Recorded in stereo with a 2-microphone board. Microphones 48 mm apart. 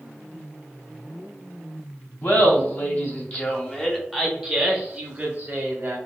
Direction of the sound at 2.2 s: 45° left (ahead or behind).